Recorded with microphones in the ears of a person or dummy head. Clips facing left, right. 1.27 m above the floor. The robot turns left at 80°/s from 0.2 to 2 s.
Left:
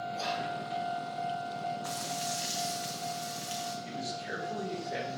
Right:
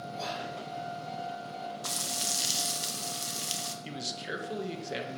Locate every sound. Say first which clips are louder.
0.1 s whispering: left 1 dB; 75° left (ahead or behind), 4 m; by 0.5 s 55° left (ahead or behind), 4 m
1.8 s frying: left 3 dB; 50° right (ahead or behind), 0.7 m
3.9 s a man speaking: left 1 dB; 40° right (ahead or behind), 1.4 m